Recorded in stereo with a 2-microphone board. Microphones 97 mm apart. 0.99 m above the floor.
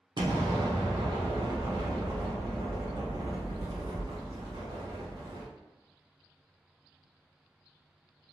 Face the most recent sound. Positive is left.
turn(degrees=-50)  # may be behind; listen again after turning